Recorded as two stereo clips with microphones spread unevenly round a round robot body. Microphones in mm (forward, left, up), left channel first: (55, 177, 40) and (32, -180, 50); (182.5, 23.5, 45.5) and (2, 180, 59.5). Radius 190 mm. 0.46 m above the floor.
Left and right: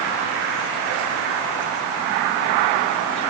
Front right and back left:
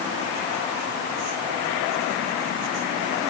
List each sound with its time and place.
Only background noise.